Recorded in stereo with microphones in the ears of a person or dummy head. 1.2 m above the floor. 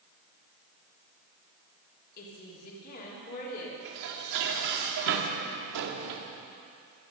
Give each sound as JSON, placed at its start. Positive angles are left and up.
{"t": 2.2, "sound": "a woman speaking", "side_deg": 55, "distance_m": 3.5}
{"t": 3.9, "sound": "dishes clattering", "side_deg": -75, "distance_m": 1.9}